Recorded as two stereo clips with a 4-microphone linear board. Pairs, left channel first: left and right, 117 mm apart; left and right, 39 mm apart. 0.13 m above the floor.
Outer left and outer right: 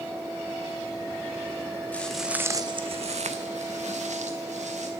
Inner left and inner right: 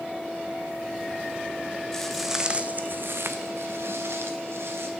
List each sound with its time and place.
1.9 s footsteps: 15° left (ahead or behind), 0.6 m; by 4.9 s 80° right, 1.6 m